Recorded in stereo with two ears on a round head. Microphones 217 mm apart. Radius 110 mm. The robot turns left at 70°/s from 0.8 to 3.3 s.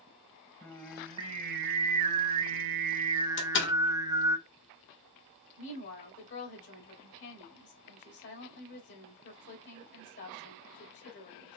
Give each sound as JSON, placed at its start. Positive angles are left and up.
{"t": 0.6, "sound": "singing", "azimuth_deg": 10, "distance_m": 0.7}
{"t": 3.4, "sound": "a door slam", "side_deg": 50, "distance_m": 1.4}
{"t": 5.6, "sound": "a woman speaking", "side_deg": 50, "distance_m": 2.5}